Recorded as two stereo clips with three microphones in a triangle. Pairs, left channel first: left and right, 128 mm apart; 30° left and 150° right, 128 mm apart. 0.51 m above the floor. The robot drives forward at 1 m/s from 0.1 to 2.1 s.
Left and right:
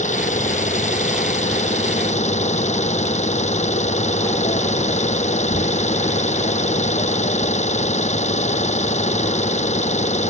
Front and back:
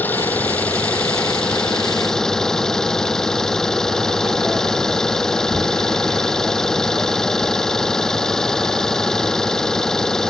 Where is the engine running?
105° left; by 10.3 s 115° left.